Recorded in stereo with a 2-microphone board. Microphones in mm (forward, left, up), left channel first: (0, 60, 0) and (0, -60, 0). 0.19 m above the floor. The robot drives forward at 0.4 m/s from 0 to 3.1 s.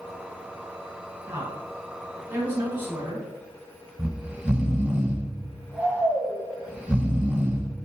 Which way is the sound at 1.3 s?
20° right (ahead or behind).